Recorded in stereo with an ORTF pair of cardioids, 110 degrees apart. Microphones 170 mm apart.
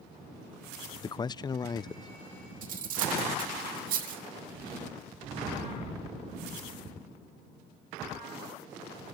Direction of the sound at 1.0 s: 25° left.